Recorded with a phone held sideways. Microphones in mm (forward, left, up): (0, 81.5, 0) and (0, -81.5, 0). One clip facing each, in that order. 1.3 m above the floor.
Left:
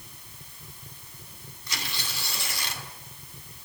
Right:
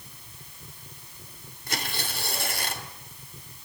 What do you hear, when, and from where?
1.7 s tearing paper: 55° right (ahead or behind), 2.5 m